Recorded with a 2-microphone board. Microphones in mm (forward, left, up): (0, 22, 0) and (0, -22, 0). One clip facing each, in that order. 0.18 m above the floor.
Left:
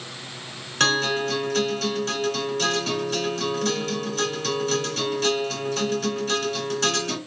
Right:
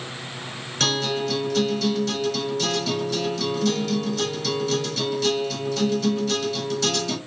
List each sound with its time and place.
0.8 s a guitar: 45° left (ahead or behind), 2 m